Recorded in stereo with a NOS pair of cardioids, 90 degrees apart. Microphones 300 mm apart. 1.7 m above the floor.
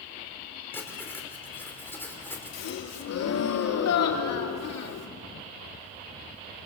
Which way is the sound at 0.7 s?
5° left.